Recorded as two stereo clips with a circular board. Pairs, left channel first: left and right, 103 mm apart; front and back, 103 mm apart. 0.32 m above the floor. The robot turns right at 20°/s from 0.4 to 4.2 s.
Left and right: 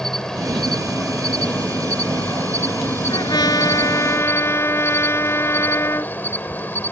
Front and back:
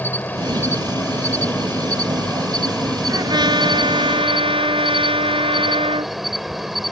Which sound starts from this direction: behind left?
A trumpet, at 3.1 s.